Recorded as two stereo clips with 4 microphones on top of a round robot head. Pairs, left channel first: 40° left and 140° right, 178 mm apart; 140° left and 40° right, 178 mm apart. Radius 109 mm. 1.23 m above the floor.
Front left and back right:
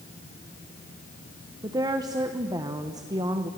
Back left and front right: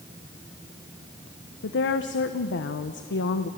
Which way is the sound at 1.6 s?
150° left.